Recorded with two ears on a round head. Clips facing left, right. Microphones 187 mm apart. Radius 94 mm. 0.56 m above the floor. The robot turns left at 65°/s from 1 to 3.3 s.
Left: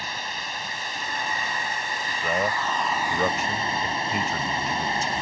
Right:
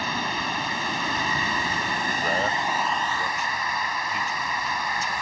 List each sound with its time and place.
0.0 s running water: 60° right; by 5.2 s 155° left
2.2 s a man speaking: centre (ahead or behind); by 5.1 s 60° left (ahead or behind)